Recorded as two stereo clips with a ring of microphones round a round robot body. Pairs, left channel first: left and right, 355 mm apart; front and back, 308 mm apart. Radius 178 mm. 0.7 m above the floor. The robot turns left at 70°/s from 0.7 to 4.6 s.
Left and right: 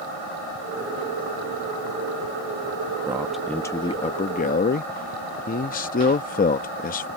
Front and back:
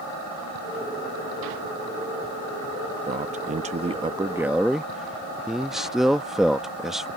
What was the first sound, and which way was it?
A man speaking, 160° right.